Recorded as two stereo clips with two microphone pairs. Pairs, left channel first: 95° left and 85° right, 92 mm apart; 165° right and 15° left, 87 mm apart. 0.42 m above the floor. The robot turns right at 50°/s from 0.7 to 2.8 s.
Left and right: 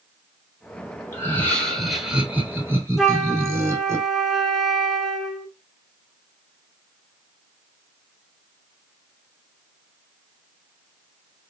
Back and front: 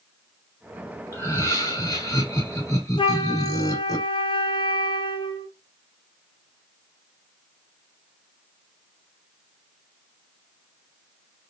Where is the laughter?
150° left, 1.7 m; by 4.0 s 130° right, 1.7 m.